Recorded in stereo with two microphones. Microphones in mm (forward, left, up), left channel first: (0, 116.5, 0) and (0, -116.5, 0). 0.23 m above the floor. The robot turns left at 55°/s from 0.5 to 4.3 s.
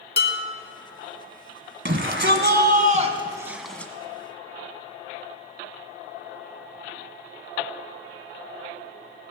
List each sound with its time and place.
0.2 s dishes clattering: 45° left (ahead or behind), 1.2 m
1.9 s a shout: 80° right, 1.5 m; by 3.9 s 165° left, 1.5 m